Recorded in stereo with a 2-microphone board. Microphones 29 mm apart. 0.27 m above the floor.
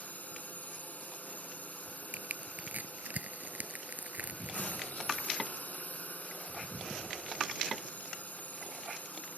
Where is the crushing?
65° right (ahead or behind).